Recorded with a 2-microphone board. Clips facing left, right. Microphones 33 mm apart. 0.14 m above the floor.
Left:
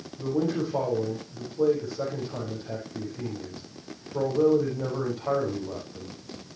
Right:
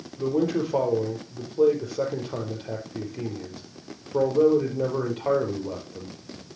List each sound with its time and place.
0.2 s a man speaking: 65° right (ahead or behind), 4.5 m